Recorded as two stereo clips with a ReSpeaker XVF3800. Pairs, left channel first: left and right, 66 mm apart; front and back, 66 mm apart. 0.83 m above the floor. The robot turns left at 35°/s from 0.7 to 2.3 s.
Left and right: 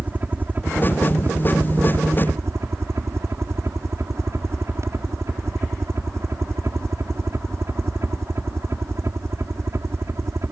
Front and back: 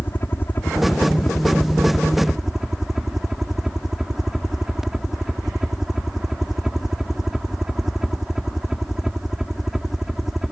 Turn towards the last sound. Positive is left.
turn(degrees=-100)